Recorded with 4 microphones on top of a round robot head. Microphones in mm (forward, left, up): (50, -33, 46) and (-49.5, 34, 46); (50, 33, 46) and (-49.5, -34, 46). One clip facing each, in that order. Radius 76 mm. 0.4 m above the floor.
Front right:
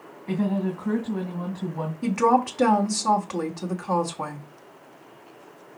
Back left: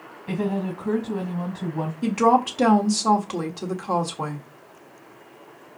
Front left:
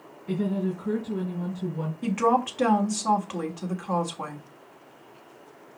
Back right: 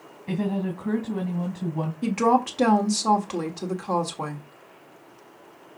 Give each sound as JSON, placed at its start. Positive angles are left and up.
{"t": 0.3, "sound": "a woman speaking", "azimuth_deg": -150, "distance_m": 2.5}
{"t": 2.0, "sound": "a woman speaking", "azimuth_deg": -160, "distance_m": 1.4}